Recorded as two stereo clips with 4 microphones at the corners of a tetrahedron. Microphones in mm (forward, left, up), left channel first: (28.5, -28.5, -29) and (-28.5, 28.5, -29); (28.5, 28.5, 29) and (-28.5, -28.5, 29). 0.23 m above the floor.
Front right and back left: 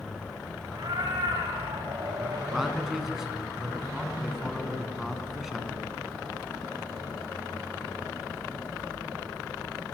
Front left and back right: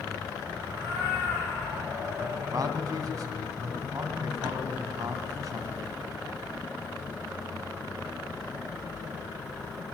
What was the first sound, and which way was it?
A cat meowing, 165° left.